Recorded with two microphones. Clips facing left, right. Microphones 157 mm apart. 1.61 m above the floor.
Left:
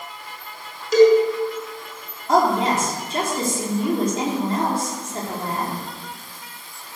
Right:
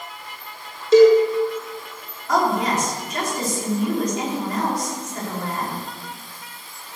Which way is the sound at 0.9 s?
30° right (ahead or behind).